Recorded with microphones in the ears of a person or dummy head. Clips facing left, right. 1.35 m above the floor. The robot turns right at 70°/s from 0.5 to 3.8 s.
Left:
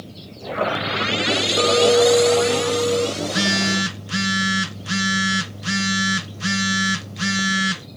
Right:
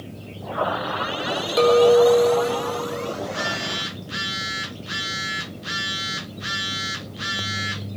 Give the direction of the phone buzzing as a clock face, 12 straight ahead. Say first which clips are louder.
Left 6 dB; 10 o'clock.